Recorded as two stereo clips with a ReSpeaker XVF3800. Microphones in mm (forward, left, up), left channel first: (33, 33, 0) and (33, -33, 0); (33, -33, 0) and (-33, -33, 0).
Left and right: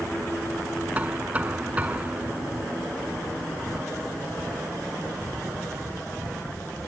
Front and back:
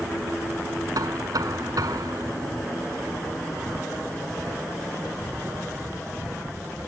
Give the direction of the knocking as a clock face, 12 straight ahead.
5 o'clock.